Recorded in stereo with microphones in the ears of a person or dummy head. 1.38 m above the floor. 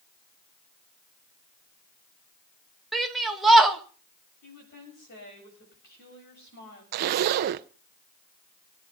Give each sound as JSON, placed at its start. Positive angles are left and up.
{"t": 2.9, "sound": "a shout", "side_deg": -5, "distance_m": 2.0}
{"t": 4.4, "sound": "a woman speaking", "side_deg": 50, "distance_m": 7.5}
{"t": 6.9, "sound": "a zipper", "side_deg": -50, "distance_m": 0.6}